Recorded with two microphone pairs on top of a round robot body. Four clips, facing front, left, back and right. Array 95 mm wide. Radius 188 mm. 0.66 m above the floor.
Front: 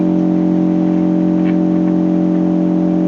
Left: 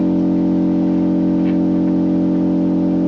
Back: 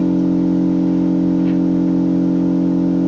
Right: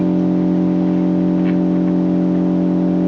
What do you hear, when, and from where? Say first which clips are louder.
0.0 s an engine running: left 1 dB, front 2 dB; 30° right, 1.2 m